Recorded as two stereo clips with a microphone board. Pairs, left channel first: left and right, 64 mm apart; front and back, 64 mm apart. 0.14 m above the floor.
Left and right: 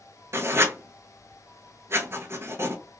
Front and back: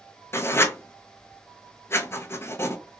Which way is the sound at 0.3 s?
45° right.